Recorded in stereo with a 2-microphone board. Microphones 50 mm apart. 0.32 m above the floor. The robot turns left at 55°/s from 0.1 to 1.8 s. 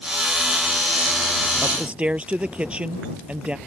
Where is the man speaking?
10° right (ahead or behind); by 3.6 s 20° right (ahead or behind).